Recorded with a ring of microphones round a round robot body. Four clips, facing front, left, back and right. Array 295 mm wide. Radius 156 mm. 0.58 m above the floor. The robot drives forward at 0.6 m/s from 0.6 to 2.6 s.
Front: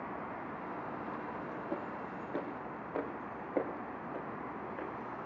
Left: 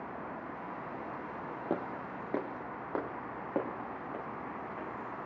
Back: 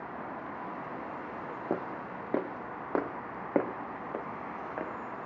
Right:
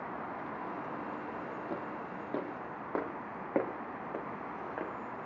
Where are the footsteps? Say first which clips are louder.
Left 3 dB, back 5 dB; 145° left, 1.4 m; by 4.9 s 150° right, 2.5 m.